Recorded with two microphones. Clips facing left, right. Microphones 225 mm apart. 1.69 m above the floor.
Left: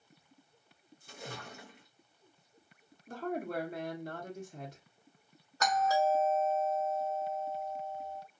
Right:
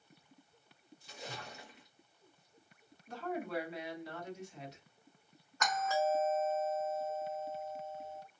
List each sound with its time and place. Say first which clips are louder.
1.0 s a splash: left 2 dB; 55° left (ahead or behind), 0.9 m
3.1 s a woman speaking: left 3 dB; 50° left (ahead or behind), 1.0 m
5.6 s a doorbell: left 4 dB; 40° left (ahead or behind), 1.0 m